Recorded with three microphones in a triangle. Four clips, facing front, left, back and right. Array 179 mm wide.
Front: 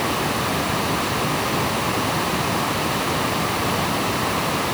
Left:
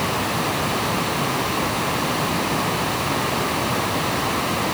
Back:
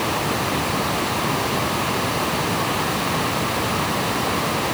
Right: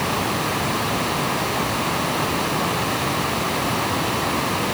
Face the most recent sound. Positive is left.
No sound to turn to.